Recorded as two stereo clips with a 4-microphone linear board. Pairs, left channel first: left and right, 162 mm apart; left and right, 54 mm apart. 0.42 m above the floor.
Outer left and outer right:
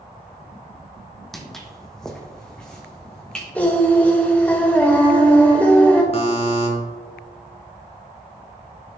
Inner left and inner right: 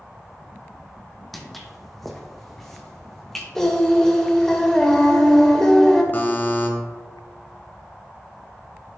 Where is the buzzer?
40° left (ahead or behind), 1.6 m.